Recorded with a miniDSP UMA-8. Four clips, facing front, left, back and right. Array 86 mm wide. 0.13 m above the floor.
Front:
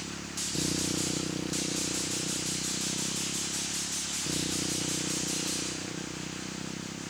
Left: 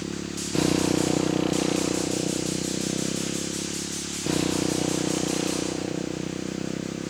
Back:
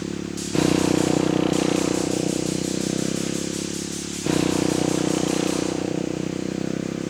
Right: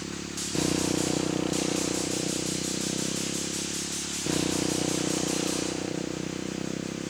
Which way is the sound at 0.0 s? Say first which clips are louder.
Left 4 dB, back 12 dB; 165° left.